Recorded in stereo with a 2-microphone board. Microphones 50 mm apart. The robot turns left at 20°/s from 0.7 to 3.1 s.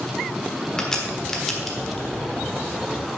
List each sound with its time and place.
0.8 s a crack: 15° left (ahead or behind), 1.6 m; by 2.0 s centre (ahead or behind), 1.6 m